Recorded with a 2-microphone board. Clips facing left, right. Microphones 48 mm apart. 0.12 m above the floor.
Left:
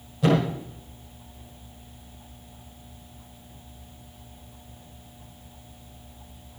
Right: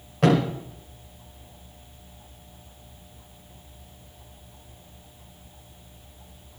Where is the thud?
70° right (ahead or behind), 7.5 m.